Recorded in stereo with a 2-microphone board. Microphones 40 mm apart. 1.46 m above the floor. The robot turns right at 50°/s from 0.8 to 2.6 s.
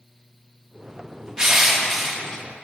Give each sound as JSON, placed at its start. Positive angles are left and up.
{"t": 1.4, "sound": "crushing", "azimuth_deg": -20, "distance_m": 1.0}